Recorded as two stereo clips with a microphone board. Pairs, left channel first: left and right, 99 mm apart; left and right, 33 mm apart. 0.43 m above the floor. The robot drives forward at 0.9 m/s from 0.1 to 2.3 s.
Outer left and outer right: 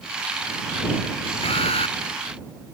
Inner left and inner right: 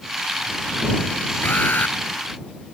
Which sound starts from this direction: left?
An alarm, at 1.4 s.